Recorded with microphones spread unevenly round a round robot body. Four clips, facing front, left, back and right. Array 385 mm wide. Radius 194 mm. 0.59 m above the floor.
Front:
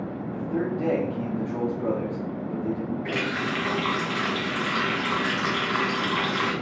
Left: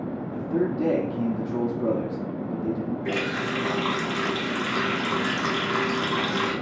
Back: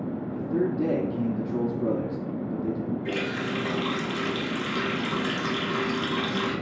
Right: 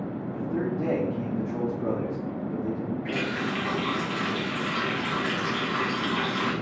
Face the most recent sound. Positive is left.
turn(degrees=70)